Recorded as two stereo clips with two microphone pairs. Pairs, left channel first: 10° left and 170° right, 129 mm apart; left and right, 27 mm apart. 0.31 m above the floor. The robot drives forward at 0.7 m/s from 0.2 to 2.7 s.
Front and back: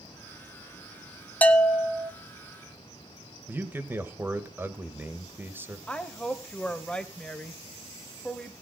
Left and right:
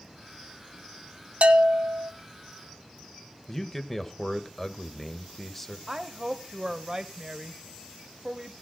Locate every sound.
1.4 s a bell: 65° right, 1.0 m; by 2.1 s 95° right, 0.9 m
3.5 s a man speaking: 155° left, 1.1 m
5.9 s a woman speaking: 65° right, 1.0 m